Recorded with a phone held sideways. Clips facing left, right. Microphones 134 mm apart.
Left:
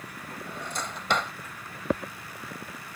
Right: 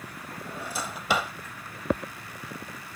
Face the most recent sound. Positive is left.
turn(degrees=-5)  # may be behind; listen again after turning